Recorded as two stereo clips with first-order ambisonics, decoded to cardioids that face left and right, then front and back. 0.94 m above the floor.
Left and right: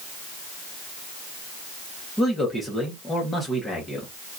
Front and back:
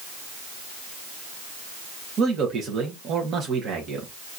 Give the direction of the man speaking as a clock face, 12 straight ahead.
6 o'clock.